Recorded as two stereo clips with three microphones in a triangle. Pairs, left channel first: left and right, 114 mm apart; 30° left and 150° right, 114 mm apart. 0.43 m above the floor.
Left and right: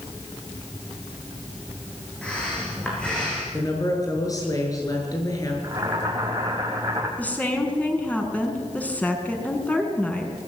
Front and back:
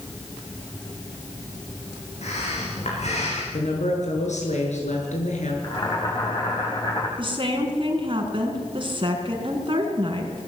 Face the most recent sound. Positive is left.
turn(degrees=165)